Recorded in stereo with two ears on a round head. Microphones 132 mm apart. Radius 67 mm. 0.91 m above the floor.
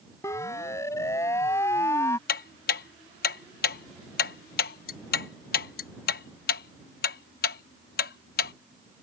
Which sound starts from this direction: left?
Ticking, at 2.3 s.